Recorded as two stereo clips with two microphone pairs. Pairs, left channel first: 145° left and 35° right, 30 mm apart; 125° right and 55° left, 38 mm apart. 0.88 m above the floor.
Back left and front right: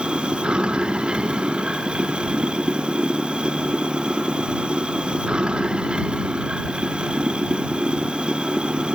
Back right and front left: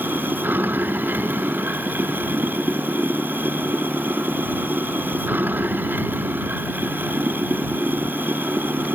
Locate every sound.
0.0 s running water: 20° left